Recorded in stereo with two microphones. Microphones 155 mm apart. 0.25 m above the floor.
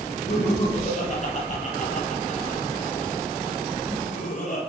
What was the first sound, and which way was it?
Laughter, 45° left (ahead or behind).